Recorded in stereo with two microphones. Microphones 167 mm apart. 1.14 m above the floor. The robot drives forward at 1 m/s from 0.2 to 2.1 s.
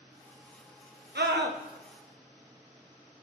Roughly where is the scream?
Right.